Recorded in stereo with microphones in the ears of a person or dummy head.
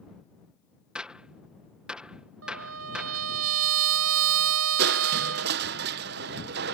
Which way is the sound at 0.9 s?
Centre (ahead or behind).